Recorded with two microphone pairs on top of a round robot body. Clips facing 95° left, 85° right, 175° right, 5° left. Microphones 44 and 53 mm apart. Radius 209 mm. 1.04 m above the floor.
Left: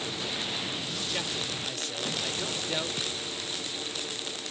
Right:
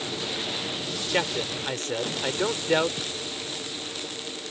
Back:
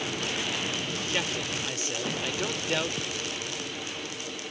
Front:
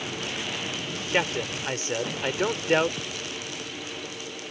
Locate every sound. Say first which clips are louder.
1.1 s a man speaking: right 10 dB, front 7 dB; 45° right